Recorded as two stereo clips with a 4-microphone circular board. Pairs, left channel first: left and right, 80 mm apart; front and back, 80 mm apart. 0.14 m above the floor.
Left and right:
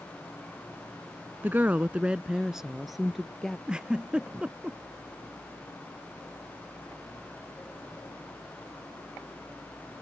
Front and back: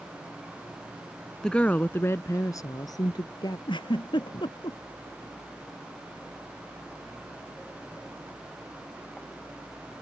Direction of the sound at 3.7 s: 10° right.